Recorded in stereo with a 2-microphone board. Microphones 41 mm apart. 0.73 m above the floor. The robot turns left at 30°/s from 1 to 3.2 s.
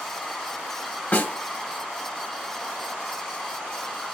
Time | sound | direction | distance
1.1 | a snare drum | 45° left (ahead or behind) | 0.7 m